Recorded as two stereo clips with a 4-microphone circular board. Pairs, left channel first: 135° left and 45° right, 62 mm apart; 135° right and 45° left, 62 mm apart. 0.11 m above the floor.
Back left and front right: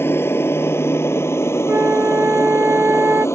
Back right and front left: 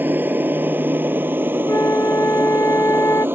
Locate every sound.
0.0 s an aircraft: 95° left
1.7 s a flute: 100° right